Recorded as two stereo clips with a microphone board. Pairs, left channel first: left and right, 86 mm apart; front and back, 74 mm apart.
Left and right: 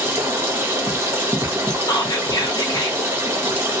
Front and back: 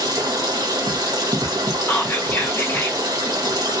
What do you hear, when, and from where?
0.0 s running water: 150° right, 0.9 m
1.9 s whispering: 60° left, 0.8 m